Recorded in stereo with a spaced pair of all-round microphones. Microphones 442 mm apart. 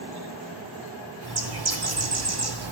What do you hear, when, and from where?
1.2 s a bird: 55° right (ahead or behind), 1.0 m